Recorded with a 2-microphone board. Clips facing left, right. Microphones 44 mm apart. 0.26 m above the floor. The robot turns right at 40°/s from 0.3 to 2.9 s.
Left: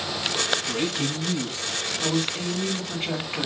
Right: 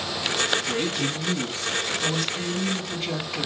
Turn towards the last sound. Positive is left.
turn(degrees=30)  # may be behind; listen again after turning